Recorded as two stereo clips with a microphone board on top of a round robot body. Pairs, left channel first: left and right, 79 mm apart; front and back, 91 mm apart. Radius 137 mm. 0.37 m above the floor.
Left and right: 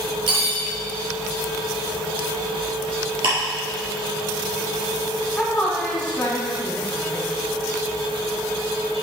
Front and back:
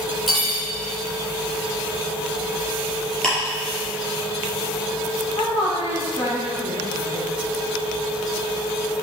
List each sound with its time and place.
0.3 s cutlery clinking: 90° right, 3.5 m
3.2 s ticking: 80° right, 4 m
5.4 s a woman speaking: 15° left, 3.5 m